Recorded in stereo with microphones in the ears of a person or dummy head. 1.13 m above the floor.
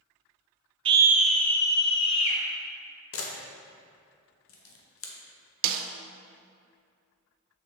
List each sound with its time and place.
0.8 s a scream: 25° right (ahead or behind), 0.7 m; by 2.4 s 40° left (ahead or behind), 1.9 m
3.1 s a camera shutter: 75° left (ahead or behind), 1.2 m
5.6 s a snare drum: 45° right (ahead or behind), 0.6 m